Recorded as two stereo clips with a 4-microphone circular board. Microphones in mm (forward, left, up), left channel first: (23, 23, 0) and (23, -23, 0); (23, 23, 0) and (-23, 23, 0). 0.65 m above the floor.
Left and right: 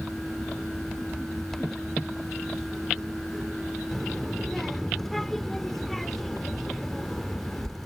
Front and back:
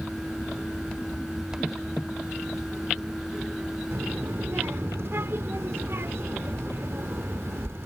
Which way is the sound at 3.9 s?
175° left.